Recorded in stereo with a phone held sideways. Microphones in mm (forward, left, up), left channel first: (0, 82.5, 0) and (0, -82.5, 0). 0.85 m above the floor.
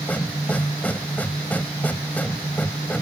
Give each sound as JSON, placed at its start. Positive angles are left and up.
{"t": 0.0, "sound": "a machine running", "side_deg": 10}